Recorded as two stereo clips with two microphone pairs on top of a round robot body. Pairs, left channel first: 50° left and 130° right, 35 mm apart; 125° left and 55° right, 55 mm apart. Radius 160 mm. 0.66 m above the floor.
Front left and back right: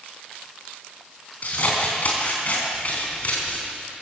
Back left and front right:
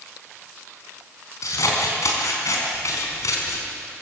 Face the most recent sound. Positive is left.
turn(degrees=100)